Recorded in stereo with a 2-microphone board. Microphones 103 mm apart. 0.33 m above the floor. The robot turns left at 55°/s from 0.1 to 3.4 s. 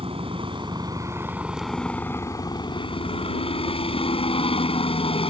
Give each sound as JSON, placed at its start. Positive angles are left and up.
{"t": 0.0, "sound": "a helicopter", "azimuth_deg": -90}